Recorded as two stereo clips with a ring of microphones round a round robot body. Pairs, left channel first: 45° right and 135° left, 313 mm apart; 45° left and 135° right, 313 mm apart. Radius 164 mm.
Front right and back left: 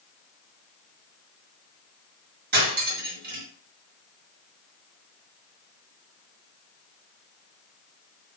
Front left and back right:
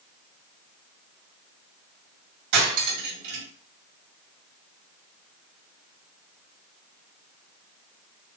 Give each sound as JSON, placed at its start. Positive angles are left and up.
{"t": 2.5, "sound": "cutlery clinking", "azimuth_deg": -165, "distance_m": 2.0}